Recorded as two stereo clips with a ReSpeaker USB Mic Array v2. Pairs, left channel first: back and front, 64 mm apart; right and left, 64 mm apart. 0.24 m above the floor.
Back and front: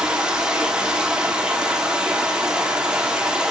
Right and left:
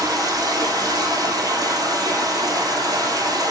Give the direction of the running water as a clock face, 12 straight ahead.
9 o'clock.